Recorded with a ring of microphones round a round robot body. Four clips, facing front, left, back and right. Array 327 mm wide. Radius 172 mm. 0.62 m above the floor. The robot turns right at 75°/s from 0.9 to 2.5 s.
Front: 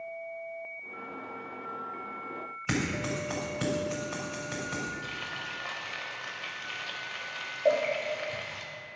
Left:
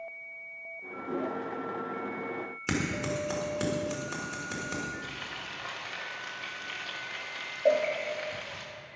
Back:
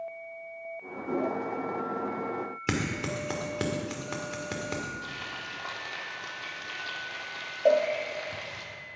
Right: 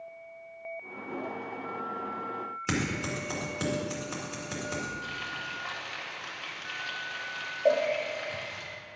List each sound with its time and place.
2.7 s scissors: 175° left, 2.0 m
5.0 s frying: 160° left, 1.6 m
7.7 s a cowbell: straight behind, 0.9 m